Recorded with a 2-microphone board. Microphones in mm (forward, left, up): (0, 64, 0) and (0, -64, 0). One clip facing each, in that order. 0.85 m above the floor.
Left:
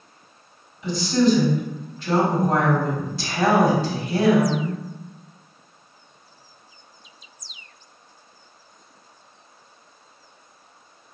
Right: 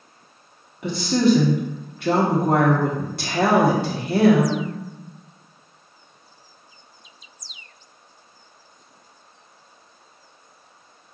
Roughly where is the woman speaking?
Right.